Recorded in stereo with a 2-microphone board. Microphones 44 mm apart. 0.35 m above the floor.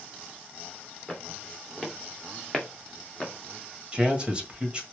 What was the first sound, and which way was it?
Footsteps, 5° left (ahead or behind).